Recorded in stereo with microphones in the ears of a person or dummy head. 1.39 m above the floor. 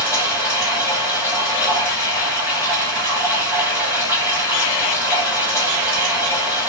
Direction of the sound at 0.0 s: 5° right (ahead or behind).